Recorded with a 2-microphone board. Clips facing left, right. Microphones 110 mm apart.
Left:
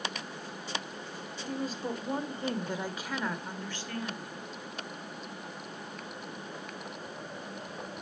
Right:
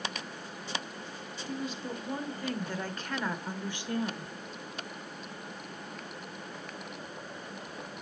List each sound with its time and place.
1.5 s a woman speaking: 45° left (ahead or behind), 1.7 m; by 4.3 s 35° right (ahead or behind), 1.3 m